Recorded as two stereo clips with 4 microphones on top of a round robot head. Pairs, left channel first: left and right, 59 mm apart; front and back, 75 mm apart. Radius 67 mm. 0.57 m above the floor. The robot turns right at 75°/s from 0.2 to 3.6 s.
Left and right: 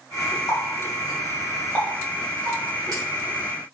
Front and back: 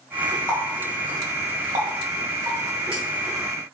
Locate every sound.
0.5 s a running tap: 75° left, 1.6 m; by 3.0 s 90° right, 1.6 m